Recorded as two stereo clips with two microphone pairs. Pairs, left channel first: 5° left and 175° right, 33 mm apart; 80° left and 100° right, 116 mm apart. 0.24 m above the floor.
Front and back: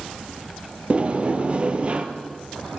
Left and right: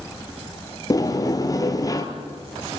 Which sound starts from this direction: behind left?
A sliding door, at 0.9 s.